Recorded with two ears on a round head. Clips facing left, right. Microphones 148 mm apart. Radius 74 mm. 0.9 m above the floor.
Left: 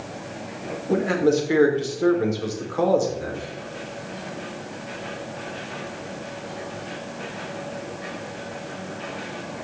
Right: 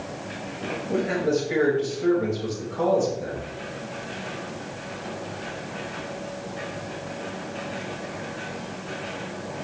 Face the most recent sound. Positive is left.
turn(degrees=70)  # may be behind; listen again after turning